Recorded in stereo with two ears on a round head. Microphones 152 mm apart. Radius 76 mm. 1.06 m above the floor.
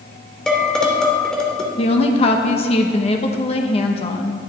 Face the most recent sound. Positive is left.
turn(degrees=35)  # may be behind; listen again after turning